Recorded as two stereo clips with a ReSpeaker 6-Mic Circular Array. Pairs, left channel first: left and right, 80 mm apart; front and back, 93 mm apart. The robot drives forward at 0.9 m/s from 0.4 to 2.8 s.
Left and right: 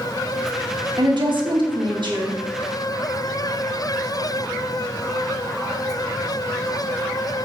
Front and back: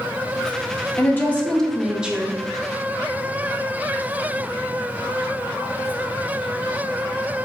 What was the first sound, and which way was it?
A woman speaking, 65° right.